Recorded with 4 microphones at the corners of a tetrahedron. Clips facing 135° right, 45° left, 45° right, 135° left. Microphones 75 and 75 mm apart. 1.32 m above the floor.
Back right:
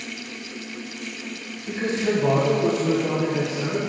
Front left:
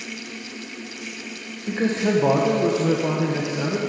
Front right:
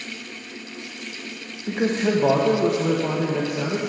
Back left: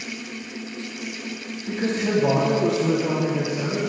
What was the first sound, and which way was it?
A man speaking, 10° right.